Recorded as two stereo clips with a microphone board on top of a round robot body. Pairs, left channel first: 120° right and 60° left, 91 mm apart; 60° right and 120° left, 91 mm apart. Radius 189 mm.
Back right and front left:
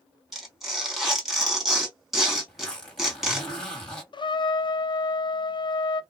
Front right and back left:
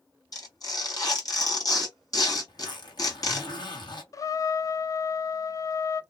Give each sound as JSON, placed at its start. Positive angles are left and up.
{"t": 0.3, "sound": "tearing paper", "azimuth_deg": -30, "distance_m": 1.8}
{"t": 2.5, "sound": "a zipper", "azimuth_deg": -40, "distance_m": 1.7}
{"t": 4.1, "sound": "a trumpet", "azimuth_deg": -105, "distance_m": 0.5}